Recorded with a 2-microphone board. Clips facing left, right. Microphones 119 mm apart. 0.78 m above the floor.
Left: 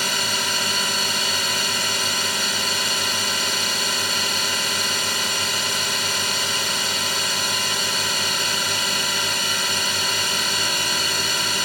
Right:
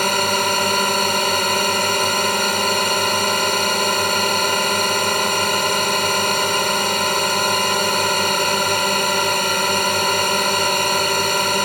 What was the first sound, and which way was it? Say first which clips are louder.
A drone: right 9 dB; 50° right (ahead or behind).